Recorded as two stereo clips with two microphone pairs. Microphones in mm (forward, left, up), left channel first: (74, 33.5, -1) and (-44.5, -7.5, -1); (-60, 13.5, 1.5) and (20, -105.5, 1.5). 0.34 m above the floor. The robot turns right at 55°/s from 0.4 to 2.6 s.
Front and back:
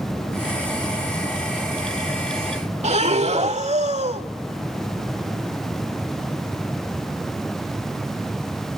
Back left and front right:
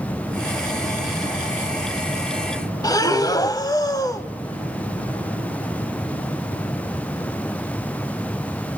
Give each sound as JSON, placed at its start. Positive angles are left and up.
{"t": 2.8, "sound": "breathing", "azimuth_deg": -175, "distance_m": 1.0}